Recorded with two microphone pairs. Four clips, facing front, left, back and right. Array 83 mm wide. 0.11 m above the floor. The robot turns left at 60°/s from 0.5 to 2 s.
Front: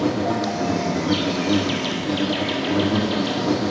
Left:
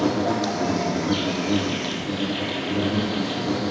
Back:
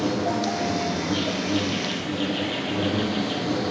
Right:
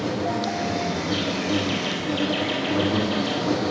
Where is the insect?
70° left, 1.5 m; by 3.7 s 20° right, 1.5 m.